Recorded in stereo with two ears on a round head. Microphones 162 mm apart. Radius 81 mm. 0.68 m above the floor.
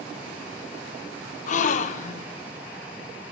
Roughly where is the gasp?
Left.